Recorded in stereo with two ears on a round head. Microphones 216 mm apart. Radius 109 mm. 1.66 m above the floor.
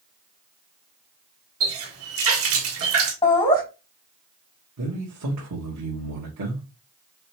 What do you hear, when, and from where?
1.6 s a running tap: 60° right (ahead or behind), 1.7 m
3.2 s laughter: 20° left (ahead or behind), 3 m
4.8 s a man speaking: 75° right (ahead or behind), 1.6 m